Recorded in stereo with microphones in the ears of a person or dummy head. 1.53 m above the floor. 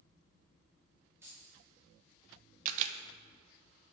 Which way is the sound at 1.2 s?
10° right (ahead or behind).